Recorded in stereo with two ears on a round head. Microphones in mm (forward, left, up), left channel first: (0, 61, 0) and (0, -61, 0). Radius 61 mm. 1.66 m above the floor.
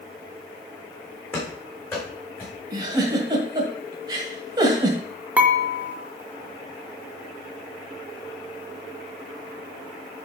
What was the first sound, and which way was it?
Running footsteps, 15° left (ahead or behind).